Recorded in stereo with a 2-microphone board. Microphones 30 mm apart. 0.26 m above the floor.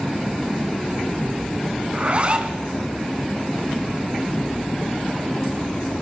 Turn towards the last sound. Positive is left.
turn(degrees=-40)  # may be behind; listen again after turning